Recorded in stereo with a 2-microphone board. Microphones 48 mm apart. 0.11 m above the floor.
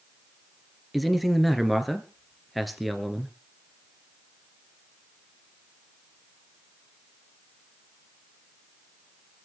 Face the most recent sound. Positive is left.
turn(degrees=0)  # may be behind; listen again after turning